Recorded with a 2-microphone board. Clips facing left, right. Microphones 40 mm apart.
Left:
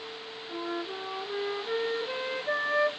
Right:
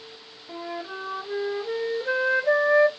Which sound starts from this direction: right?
A flute, at 0.5 s.